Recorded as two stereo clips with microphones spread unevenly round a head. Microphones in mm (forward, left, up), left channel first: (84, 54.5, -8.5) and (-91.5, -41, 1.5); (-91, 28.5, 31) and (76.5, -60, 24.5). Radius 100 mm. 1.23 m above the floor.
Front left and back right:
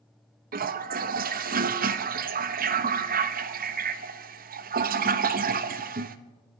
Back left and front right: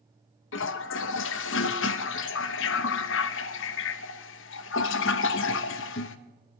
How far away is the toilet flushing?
About 0.8 m.